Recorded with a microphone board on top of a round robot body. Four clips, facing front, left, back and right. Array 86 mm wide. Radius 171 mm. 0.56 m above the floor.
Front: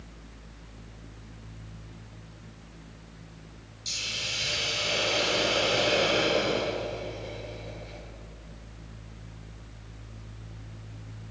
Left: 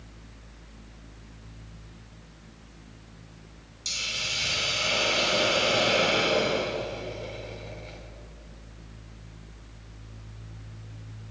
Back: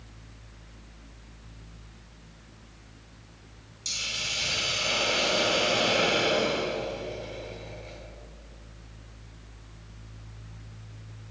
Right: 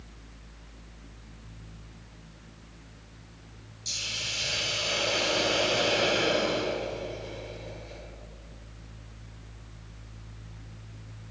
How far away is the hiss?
About 4 m.